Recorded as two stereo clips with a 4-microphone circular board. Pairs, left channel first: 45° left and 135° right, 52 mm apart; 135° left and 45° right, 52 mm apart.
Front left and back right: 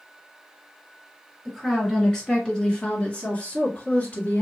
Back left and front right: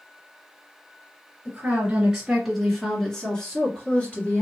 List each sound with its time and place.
1.4 s a woman speaking: 40° right, 1.8 m; by 4.4 s 90° left, 2.5 m